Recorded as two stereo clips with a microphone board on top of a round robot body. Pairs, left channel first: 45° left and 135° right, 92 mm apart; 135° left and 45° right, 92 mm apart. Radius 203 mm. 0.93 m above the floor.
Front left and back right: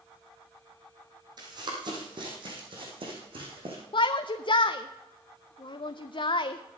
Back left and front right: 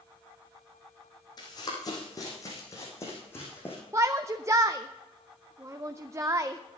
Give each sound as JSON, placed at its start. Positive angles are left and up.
{"t": 1.4, "sound": "running footsteps", "azimuth_deg": 180, "distance_m": 3.5}
{"t": 3.9, "sound": "a shout", "azimuth_deg": 15, "distance_m": 0.6}